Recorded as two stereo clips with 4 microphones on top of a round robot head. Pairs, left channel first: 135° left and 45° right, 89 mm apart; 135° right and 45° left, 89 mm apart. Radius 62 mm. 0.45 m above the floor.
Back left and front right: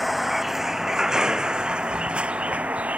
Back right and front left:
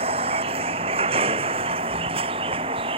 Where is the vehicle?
40° left; by 3.0 s 30° left.